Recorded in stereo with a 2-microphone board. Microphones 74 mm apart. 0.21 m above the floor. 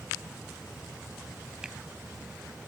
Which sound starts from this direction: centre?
A finger snap, at 1.6 s.